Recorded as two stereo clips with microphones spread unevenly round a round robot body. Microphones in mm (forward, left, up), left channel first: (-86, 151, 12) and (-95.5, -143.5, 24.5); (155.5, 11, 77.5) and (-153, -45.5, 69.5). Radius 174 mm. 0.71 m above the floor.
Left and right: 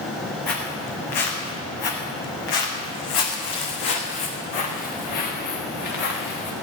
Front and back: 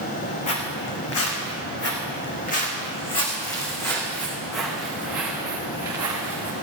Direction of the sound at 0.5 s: 50° left.